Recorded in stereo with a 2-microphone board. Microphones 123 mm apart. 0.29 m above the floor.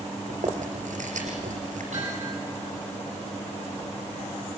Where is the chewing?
85° right, 3.5 m.